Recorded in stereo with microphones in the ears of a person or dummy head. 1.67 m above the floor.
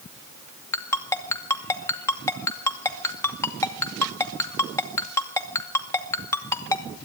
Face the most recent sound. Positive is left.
turn(degrees=15)  # may be behind; listen again after turning